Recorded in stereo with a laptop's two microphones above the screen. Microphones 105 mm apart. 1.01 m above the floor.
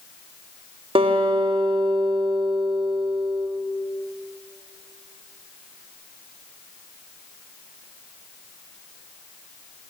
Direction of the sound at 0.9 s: 55° right (ahead or behind).